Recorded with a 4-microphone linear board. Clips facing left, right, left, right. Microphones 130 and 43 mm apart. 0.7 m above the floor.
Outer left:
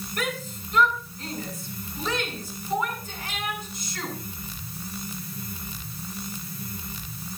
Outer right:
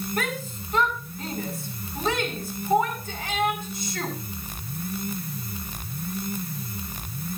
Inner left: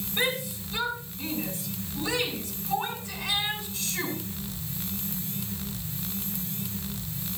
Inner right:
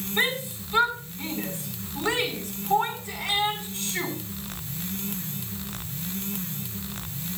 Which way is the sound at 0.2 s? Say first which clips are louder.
Outer left 2 dB, inner right 2 dB; 50° right (ahead or behind).